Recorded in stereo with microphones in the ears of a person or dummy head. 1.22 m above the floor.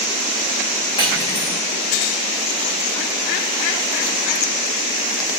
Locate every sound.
1.0 s cutlery clinking: 30° left (ahead or behind), 2 m